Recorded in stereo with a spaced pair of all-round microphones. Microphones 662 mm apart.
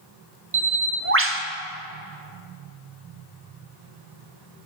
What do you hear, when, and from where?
0.5 s a bird: 20° right (ahead or behind), 0.6 m